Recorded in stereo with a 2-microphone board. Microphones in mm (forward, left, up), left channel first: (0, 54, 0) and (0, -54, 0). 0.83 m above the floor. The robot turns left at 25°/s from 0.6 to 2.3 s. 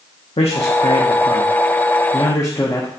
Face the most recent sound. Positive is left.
turn(degrees=30)